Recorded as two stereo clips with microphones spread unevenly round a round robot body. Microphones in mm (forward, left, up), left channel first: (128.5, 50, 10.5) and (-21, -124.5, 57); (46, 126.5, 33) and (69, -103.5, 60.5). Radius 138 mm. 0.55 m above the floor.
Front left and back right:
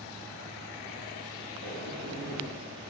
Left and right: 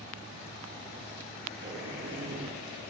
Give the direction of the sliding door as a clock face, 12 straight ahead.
4 o'clock.